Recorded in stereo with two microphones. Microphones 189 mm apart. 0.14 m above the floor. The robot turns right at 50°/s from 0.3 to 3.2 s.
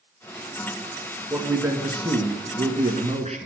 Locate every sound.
1.3 s a man speaking: 175° right, 1.7 m; by 3.5 s 80° right, 1.7 m